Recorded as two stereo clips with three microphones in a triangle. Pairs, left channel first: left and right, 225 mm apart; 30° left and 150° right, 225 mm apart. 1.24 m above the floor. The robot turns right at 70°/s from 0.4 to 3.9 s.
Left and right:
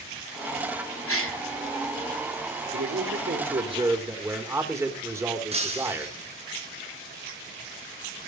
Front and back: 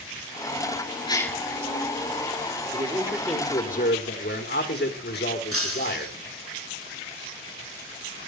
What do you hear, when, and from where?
1.1 s a gasp: 100° left, 3 m; by 1.4 s 120° left, 3 m
2.7 s a man speaking: 95° right, 4 m; by 6.1 s 15° right, 4 m
5.5 s breaking glass: 155° right, 6 m